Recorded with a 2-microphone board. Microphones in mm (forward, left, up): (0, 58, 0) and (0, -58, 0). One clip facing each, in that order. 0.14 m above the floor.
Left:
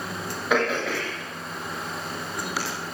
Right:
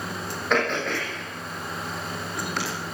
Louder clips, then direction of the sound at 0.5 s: Left 1 dB; 5° left (ahead or behind).